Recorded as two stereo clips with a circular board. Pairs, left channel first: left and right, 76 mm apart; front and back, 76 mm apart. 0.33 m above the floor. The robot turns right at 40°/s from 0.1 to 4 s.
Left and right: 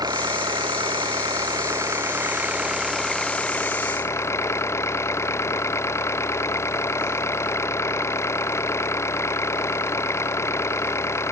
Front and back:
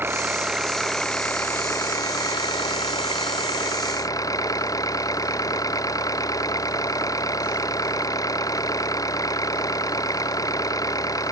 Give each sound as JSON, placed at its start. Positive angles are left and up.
{"t": 0.0, "sound": "an engine running", "azimuth_deg": -120}